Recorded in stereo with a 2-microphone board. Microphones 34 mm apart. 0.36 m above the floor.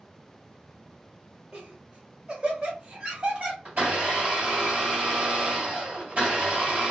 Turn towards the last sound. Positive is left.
turn(degrees=-55)  # may be behind; listen again after turning